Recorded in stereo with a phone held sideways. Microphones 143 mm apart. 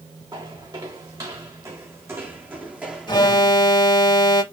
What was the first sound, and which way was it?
Footsteps, 30° right (ahead or behind).